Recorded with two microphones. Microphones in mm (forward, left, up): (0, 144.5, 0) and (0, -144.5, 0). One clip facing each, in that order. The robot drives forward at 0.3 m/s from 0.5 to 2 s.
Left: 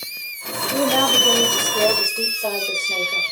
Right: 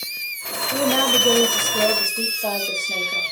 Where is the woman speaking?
5° right (ahead or behind), 0.8 m.